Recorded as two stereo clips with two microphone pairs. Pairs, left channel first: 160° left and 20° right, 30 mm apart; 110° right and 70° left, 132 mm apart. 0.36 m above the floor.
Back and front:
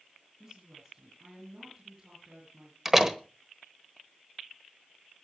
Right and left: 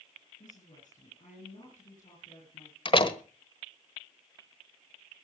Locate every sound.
0.4 s a woman speaking: 85° right, 7 m
2.9 s a door slam: 95° right, 1.1 m